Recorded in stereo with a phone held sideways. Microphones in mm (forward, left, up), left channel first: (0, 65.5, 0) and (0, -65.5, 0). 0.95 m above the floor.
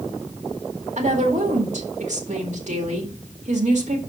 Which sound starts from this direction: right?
A woman speaking, at 1.0 s.